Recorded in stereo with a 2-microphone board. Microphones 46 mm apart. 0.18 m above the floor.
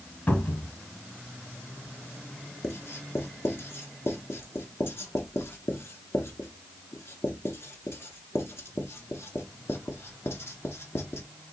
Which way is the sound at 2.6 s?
65° left (ahead or behind).